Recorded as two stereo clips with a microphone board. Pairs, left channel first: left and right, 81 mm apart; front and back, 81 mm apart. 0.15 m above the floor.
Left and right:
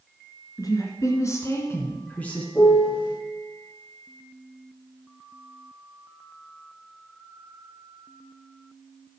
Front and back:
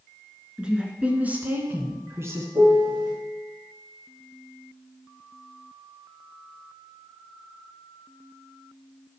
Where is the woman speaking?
105° left, 2 m; by 2.5 s 160° left, 1.7 m.